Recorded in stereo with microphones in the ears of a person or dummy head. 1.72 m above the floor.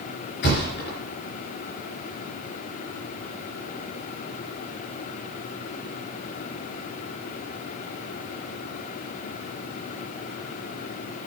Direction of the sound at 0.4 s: 55° left (ahead or behind).